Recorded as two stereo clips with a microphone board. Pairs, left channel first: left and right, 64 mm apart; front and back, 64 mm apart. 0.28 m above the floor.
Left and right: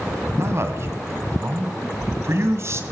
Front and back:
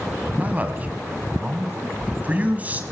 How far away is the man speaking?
About 1.8 m.